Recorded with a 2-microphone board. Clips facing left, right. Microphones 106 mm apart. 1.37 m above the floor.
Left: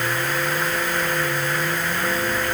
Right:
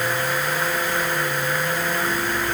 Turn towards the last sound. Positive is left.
No sound to turn to.